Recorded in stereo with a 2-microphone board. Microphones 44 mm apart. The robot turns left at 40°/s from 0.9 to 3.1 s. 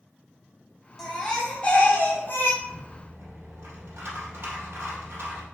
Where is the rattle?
60° right (ahead or behind), 2.5 m; by 5.5 s 65° right (ahead or behind), 2.5 m.